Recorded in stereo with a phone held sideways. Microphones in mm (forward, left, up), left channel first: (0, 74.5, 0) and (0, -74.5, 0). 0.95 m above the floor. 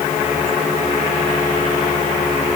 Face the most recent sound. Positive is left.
No sound to turn to.